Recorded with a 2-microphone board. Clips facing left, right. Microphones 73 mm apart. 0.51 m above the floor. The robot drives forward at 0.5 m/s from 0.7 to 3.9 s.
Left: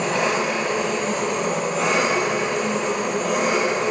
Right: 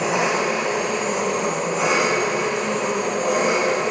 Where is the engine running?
10° right (ahead or behind), 1.1 m; by 3.9 s 5° right (ahead or behind), 2.5 m.